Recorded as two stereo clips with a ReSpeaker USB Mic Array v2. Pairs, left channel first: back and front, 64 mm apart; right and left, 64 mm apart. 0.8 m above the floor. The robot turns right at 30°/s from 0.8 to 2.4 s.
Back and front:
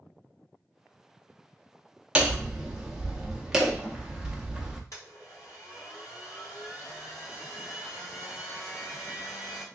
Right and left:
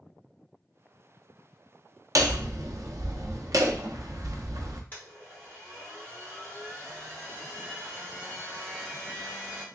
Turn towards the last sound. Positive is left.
turn(degrees=-150)